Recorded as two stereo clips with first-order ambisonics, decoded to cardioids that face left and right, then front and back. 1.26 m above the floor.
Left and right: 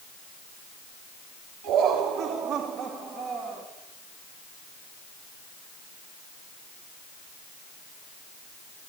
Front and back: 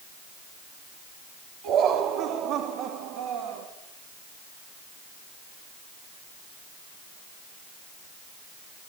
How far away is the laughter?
About 3.5 m.